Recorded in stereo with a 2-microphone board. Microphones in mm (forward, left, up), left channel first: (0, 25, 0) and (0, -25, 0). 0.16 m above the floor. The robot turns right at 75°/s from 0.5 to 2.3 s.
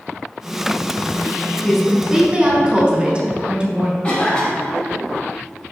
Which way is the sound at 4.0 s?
25° left (ahead or behind).